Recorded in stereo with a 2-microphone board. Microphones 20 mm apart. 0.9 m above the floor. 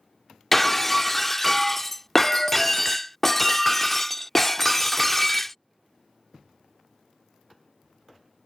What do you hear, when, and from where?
0.5 s breaking glass: 10° left (ahead or behind)